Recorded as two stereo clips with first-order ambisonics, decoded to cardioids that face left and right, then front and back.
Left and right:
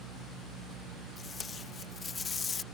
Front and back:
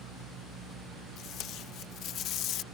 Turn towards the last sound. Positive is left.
turn(degrees=25)